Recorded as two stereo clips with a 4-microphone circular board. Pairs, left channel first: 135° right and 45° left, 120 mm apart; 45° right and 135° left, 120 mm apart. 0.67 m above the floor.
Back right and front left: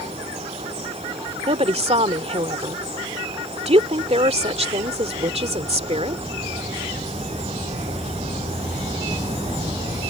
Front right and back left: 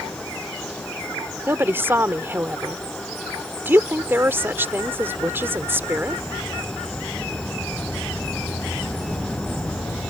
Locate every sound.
1.5 s a woman speaking: 65° left